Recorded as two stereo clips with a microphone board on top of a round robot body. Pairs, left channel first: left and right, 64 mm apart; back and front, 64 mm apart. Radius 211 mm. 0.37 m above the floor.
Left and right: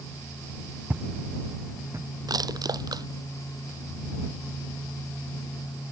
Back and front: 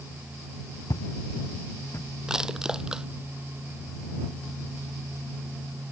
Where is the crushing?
80° right.